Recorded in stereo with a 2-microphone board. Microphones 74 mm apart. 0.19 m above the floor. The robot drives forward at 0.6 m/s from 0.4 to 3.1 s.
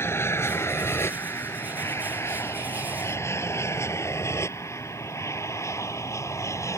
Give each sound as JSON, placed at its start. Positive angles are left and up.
{"t": 0.0, "sound": "an aircraft", "side_deg": 35}